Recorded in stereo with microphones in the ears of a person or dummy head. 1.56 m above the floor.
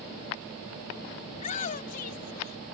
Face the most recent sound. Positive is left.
turn(degrees=45)  # may be behind; listen again after turning